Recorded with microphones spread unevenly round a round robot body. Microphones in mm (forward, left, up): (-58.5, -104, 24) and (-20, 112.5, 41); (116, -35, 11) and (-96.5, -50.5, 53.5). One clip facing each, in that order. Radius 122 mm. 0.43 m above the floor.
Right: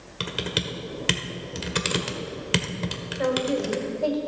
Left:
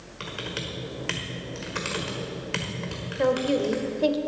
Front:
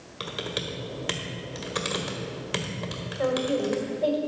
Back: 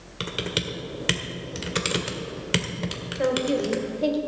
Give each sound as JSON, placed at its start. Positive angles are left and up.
{"t": 0.2, "sound": "typing on a keyboard", "azimuth_deg": -120, "distance_m": 1.6}
{"t": 3.2, "sound": "a woman speaking", "azimuth_deg": 120, "distance_m": 1.7}